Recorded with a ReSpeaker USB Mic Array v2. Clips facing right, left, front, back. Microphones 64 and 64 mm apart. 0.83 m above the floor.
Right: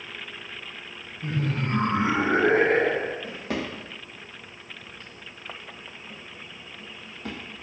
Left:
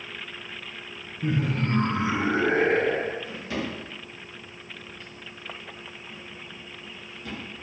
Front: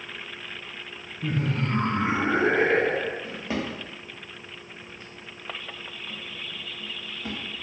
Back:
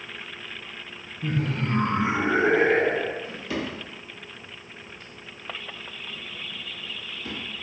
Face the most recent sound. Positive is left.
turn(degrees=-55)